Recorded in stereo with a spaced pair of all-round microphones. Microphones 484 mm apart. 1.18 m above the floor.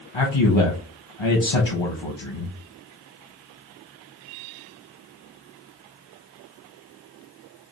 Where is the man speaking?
60° left (ahead or behind), 1.0 m.